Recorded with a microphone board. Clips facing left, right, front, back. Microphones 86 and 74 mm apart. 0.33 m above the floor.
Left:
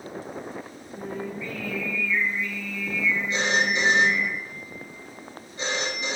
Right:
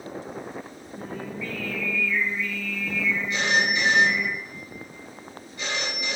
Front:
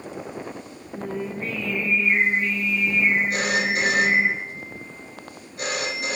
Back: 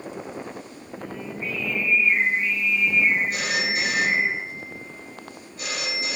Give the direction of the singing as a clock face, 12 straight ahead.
11 o'clock.